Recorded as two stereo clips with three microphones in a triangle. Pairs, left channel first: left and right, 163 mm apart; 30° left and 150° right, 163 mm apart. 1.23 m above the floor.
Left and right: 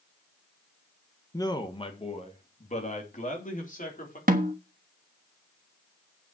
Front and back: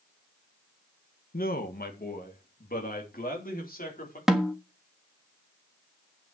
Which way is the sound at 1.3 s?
25° left.